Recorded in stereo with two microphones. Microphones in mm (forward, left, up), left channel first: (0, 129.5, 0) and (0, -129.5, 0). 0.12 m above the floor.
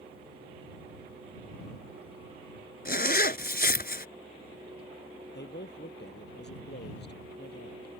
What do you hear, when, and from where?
2.9 s a zipper: 40° left (ahead or behind)
5.3 s a man speaking: 45° left (ahead or behind)